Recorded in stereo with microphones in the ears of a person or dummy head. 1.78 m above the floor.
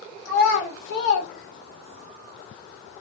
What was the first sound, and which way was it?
A child speaking, 60° left (ahead or behind).